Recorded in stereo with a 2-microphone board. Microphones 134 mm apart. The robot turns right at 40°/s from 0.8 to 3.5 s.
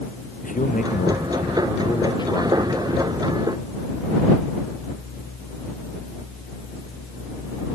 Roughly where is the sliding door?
No sliding door in this recording.